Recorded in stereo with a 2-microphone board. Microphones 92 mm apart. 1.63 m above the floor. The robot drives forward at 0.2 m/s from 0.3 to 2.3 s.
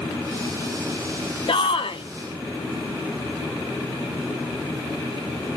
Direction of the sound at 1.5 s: 70° left (ahead or behind).